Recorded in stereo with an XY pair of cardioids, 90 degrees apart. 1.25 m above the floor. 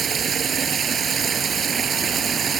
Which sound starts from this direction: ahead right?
Running water, at 0.0 s.